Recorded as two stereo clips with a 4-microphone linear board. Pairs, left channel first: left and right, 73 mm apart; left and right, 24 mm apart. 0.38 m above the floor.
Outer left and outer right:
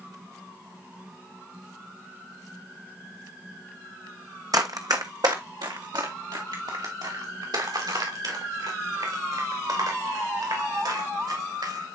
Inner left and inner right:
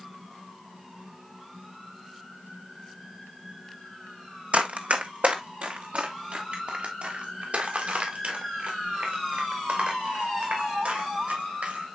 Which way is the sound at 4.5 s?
65° right (ahead or behind).